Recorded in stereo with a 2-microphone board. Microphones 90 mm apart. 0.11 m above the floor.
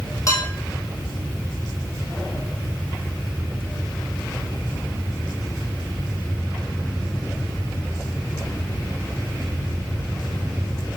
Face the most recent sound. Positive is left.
turn(degrees=35)  # may be behind; listen again after turning